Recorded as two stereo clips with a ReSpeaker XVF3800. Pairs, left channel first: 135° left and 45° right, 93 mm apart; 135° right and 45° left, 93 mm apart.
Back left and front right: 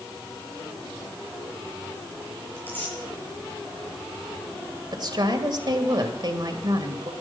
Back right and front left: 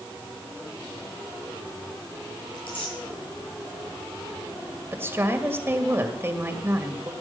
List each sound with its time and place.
2.5 s tearing paper: 155° right, 8.5 m
4.9 s a woman speaking: 15° right, 1.9 m